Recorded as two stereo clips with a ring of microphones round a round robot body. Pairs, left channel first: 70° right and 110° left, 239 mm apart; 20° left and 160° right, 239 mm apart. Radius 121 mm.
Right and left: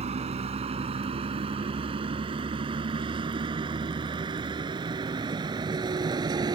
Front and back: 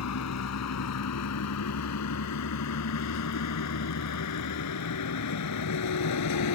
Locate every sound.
0.0 s a vehicle: 45° left; by 6.5 s 40° left